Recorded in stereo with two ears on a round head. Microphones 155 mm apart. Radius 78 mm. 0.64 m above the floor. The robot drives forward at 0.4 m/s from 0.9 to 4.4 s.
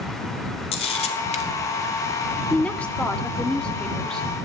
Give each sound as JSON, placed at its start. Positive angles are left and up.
{"t": 0.7, "sound": "a camera shutter", "side_deg": 35, "distance_m": 1.7}
{"t": 2.5, "sound": "a woman speaking", "side_deg": 10, "distance_m": 0.9}